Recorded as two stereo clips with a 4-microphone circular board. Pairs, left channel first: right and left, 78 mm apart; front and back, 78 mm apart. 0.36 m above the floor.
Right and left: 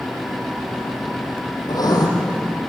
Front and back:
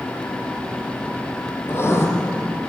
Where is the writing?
55° right, 4 m.